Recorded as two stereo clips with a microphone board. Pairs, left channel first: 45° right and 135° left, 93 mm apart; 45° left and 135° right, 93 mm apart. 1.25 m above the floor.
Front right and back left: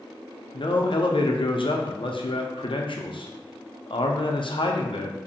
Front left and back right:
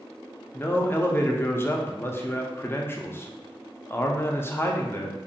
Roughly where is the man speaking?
Ahead.